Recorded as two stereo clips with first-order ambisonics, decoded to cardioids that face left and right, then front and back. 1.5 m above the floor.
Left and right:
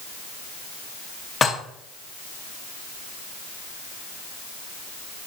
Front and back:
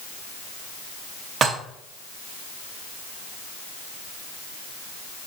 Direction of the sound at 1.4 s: 145° left.